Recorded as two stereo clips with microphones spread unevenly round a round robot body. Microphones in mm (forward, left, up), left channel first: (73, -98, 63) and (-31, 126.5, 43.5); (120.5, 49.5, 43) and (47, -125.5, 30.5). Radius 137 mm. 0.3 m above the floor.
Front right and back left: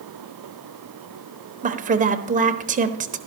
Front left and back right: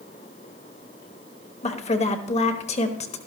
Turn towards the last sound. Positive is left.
turn(degrees=100)